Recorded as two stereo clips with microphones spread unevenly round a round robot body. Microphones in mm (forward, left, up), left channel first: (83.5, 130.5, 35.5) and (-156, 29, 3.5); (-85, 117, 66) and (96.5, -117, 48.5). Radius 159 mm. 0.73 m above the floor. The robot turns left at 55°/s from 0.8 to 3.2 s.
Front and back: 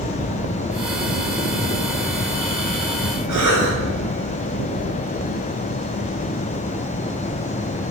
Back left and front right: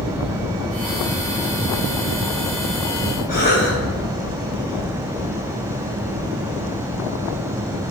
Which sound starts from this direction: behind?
A cough, at 3.3 s.